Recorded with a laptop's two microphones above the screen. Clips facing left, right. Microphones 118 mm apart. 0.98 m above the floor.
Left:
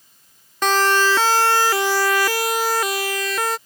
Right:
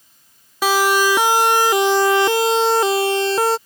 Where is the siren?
10° right (ahead or behind); by 3.6 s 30° right (ahead or behind).